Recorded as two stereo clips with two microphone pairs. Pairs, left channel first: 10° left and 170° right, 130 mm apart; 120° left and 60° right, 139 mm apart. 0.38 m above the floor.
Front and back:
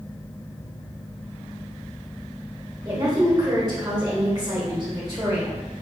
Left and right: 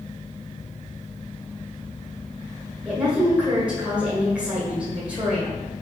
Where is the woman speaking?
135° right, 1.5 m.